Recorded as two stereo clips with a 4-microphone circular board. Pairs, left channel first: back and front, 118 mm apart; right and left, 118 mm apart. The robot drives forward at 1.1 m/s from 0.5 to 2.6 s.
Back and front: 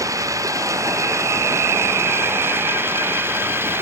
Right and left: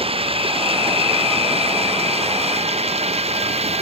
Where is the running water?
60° left; by 3.8 s 70° left.